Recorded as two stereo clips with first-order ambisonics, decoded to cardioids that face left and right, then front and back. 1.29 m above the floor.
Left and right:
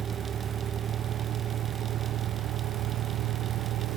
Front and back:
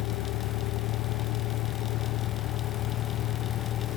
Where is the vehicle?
25° right; by 4.0 s 50° right.